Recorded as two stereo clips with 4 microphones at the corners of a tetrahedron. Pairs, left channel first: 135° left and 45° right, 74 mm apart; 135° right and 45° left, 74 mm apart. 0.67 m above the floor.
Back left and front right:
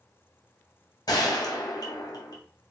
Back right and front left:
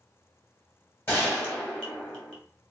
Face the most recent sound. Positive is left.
turn(degrees=165)